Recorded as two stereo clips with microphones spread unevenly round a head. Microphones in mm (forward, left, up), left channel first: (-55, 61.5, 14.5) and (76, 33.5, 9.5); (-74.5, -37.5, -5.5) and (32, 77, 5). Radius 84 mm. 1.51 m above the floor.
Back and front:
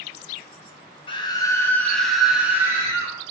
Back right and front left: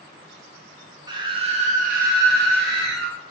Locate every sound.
1.1 s a scream: 115° left, 1.1 m; by 3.1 s 55° left, 1.5 m